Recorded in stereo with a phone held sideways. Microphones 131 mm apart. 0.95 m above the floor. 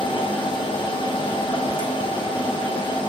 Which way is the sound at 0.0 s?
40° left (ahead or behind).